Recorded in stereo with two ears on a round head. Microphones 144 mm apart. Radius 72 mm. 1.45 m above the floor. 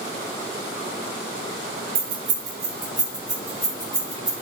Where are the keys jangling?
45° right (ahead or behind), 1.1 m; by 4.3 s 5° left (ahead or behind), 3 m.